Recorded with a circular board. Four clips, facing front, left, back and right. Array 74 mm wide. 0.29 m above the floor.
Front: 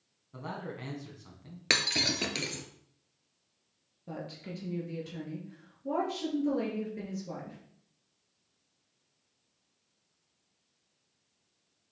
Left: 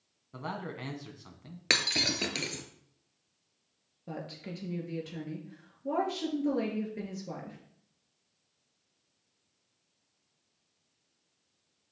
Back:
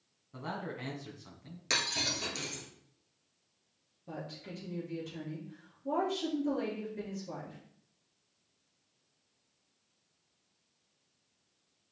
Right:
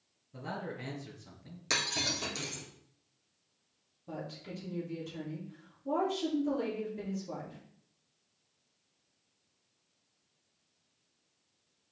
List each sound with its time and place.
0.3 s a man speaking: 90° left, 2 m
1.7 s breaking glass: 50° left, 1.3 m
4.1 s a woman speaking: 75° left, 4 m